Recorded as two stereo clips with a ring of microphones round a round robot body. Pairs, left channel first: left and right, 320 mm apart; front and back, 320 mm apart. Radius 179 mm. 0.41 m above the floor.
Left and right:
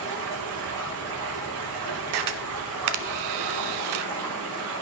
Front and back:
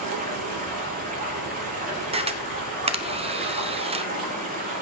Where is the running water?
115° right, 5 m.